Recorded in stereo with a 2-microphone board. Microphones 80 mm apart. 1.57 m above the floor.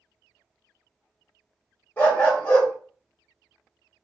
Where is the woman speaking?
No woman speaking in this recording.